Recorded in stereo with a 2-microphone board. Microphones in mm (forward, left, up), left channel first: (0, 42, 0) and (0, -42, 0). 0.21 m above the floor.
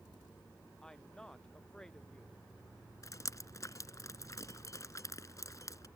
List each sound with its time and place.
0.8 s a woman speaking: 10° left (ahead or behind)
3.0 s dripping: 40° left (ahead or behind)